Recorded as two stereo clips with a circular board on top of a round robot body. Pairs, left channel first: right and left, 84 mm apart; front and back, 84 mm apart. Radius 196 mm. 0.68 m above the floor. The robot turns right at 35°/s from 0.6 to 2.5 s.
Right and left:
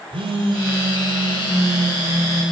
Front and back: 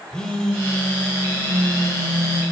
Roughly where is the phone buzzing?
Left.